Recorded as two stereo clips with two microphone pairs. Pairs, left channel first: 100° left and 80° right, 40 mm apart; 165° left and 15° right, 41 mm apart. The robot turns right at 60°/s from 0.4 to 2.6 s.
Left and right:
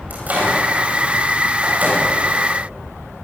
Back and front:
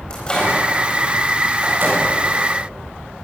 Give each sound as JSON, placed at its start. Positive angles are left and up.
{"t": 0.1, "sound": "a microwave", "azimuth_deg": -125, "distance_m": 8.5}